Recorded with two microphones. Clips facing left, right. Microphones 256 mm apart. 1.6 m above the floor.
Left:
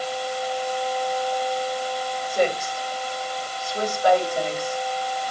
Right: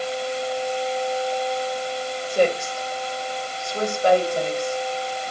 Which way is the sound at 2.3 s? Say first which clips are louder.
Right 3 dB; 25° right (ahead or behind).